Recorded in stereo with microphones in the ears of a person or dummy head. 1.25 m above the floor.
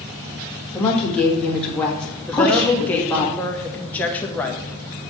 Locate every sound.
0.7 s a woman speaking: 10° left (ahead or behind), 1.7 m
2.3 s a woman speaking: 10° left (ahead or behind), 1.0 m